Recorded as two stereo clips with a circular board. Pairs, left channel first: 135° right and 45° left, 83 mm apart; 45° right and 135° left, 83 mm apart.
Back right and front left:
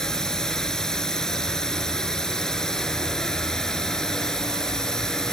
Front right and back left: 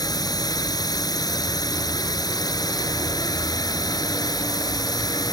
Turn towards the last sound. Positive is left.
turn(degrees=-55)